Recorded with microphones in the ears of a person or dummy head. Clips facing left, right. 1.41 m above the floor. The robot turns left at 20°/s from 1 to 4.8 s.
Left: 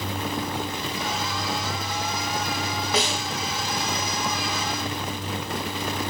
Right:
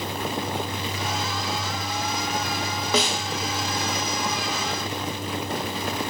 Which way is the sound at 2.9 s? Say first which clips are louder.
Right 2 dB; 80° right.